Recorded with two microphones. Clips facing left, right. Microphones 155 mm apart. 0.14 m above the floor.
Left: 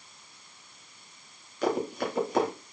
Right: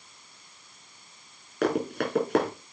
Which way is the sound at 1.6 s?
65° right (ahead or behind).